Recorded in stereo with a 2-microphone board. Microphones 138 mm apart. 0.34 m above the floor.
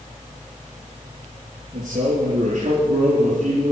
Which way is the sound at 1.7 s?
55° right (ahead or behind).